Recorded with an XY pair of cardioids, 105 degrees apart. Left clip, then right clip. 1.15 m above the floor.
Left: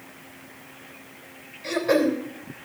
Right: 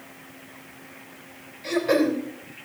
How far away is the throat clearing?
About 3.5 m.